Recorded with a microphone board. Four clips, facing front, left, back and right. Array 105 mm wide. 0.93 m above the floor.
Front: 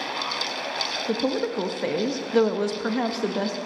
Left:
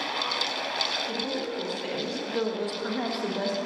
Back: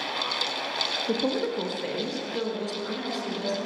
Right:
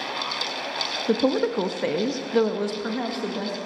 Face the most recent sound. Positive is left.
turn(degrees=5)